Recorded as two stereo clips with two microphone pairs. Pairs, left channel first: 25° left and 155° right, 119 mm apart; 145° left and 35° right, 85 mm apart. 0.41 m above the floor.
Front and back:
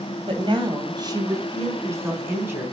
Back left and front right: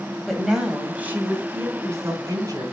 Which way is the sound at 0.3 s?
125° right.